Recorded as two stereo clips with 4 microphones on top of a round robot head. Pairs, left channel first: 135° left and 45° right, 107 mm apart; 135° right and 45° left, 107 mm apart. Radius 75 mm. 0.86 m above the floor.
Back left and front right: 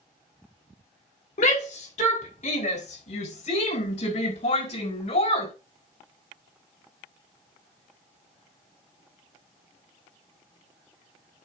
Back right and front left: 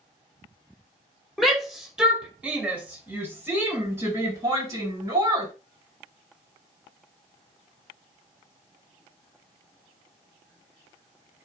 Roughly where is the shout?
Behind left.